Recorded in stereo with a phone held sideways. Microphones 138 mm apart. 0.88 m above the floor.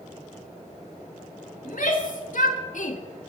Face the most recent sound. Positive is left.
turn(degrees=60)  # may be behind; listen again after turning